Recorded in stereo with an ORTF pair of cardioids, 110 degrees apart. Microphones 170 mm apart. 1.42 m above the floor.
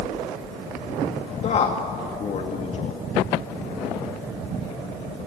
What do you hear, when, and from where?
1.4 s a man speaking: 40° left, 2 m